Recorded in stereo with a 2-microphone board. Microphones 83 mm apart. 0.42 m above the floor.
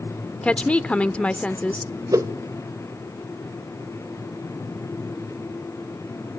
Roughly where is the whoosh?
Right.